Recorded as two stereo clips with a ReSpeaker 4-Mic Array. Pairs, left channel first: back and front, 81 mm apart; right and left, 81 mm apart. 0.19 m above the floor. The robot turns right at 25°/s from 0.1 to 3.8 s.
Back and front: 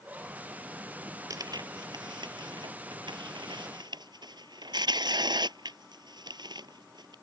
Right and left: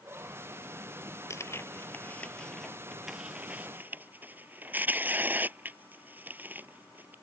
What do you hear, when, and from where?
1.3 s tearing paper: 40° right; by 7.2 s 25° left